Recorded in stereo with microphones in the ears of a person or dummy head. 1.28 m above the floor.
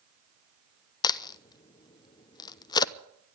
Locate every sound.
1.0 s a crack: 20° left (ahead or behind), 0.6 m